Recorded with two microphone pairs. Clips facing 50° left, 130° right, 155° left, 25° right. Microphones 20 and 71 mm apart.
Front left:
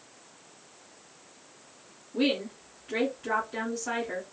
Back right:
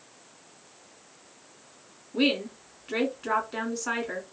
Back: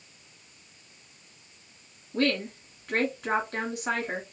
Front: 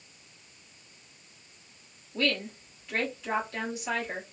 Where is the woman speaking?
Straight behind, 1.4 m.